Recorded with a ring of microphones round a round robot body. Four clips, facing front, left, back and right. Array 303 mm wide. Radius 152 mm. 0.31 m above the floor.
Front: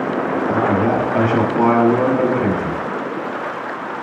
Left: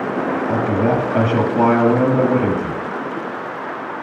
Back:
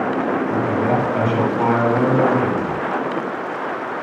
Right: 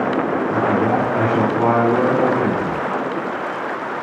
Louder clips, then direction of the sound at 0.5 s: Even, front 5 dB; 65° left.